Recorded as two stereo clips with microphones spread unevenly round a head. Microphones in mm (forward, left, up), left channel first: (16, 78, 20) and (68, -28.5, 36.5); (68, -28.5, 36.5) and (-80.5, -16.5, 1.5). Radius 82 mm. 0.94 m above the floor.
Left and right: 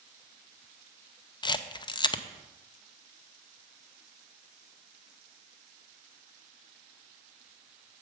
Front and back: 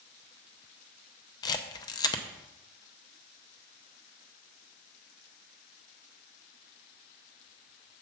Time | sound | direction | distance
1.4 | a camera shutter | 65° left | 0.7 m